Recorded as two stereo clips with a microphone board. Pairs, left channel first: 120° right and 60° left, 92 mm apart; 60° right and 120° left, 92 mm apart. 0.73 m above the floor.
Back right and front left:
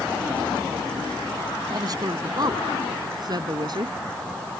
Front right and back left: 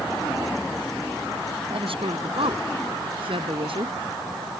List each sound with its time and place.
1.7 s a woman speaking: 105° left; by 3.9 s 100° left